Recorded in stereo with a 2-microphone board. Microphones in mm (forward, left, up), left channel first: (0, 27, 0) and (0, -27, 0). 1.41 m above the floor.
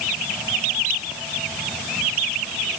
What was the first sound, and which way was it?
Only background noise.